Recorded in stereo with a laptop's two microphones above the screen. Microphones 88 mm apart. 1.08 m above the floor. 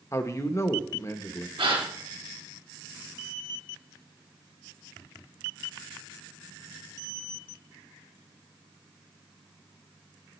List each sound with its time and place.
0.1 s a man speaking: 30° left (ahead or behind), 0.9 m
1.6 s a gasp: 80° right, 3 m